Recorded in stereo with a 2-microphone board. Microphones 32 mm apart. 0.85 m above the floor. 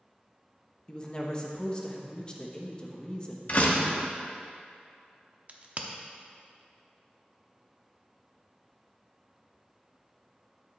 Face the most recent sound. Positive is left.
turn(degrees=-45)  # may be behind; listen again after turning